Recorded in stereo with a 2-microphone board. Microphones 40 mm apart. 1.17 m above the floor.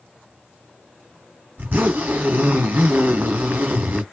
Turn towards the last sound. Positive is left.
turn(degrees=-55)  # may be behind; listen again after turning